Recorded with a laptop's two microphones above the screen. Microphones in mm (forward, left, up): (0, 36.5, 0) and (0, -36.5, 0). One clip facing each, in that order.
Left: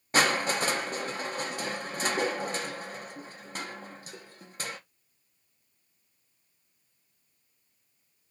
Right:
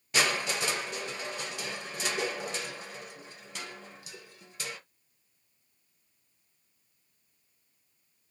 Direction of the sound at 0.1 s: 40° left (ahead or behind).